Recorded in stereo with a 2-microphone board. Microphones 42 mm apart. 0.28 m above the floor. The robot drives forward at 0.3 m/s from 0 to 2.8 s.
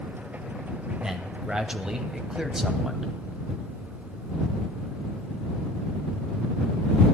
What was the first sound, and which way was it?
A man speaking, 20° right (ahead or behind).